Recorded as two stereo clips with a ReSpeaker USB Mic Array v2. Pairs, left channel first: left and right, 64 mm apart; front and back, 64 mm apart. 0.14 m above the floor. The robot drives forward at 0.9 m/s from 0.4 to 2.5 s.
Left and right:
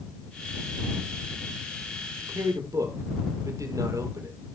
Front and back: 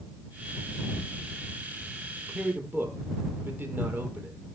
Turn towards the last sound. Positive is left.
turn(degrees=-120)